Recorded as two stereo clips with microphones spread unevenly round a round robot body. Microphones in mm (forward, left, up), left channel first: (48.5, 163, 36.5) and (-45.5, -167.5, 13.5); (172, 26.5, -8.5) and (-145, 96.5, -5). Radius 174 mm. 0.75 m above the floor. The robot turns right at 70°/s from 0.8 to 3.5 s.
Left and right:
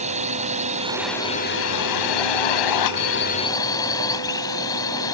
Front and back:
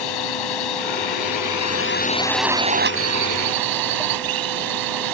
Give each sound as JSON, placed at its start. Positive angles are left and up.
{"t": 0.0, "sound": "a drone", "azimuth_deg": -35}